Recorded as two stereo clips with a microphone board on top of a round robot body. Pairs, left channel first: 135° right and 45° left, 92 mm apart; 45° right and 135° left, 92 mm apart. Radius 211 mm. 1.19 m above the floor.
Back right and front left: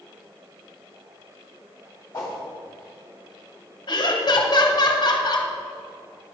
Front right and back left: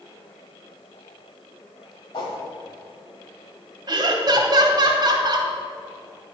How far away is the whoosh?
About 1.4 m.